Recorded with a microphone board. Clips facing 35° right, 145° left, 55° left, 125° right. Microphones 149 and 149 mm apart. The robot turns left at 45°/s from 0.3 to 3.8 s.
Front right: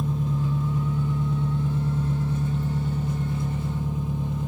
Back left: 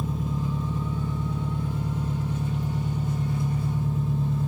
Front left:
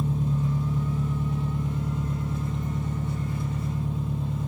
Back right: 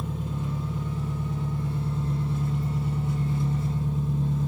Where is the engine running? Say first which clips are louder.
Front right 2 dB, front left 5 dB; 65° left, 1.5 m; by 4.5 s 95° right, 1.5 m.